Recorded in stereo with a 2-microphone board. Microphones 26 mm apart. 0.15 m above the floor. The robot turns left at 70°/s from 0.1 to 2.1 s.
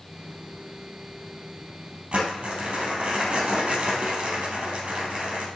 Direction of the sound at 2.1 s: 45° right (ahead or behind).